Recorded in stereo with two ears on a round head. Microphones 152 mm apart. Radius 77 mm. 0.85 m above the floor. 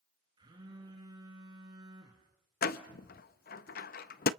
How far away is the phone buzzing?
About 4 m.